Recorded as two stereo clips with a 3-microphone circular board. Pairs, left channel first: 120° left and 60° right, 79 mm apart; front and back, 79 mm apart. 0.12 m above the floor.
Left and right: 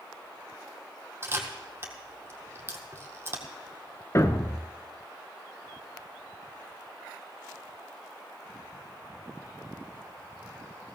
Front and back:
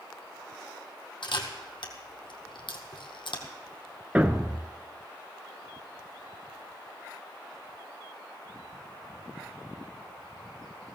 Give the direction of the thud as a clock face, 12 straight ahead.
8 o'clock.